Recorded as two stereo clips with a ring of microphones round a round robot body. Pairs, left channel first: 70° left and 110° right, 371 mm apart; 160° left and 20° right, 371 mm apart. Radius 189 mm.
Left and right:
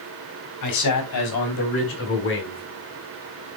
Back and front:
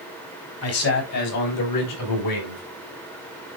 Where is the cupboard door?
No cupboard door in this recording.